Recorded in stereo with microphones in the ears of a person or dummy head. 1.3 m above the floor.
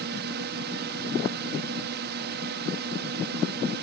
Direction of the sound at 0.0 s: 55° right (ahead or behind).